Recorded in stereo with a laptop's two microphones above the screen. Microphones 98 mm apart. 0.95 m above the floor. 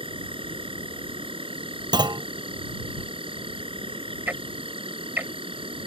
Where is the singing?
I don't hear singing.